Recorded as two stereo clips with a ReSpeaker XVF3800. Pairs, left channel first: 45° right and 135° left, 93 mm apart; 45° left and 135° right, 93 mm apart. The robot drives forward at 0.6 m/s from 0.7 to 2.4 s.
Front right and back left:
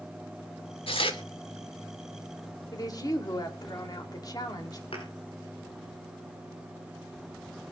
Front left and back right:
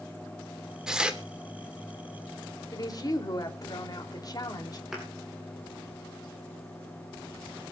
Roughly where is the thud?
Ahead right.